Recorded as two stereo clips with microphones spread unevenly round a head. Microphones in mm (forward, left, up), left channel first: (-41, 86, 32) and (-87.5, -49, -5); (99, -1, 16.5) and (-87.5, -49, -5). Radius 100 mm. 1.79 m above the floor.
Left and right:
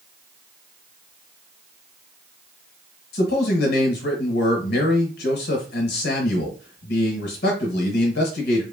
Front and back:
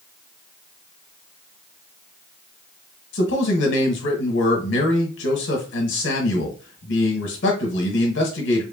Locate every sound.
3.1 s a man speaking: 50° left, 0.8 m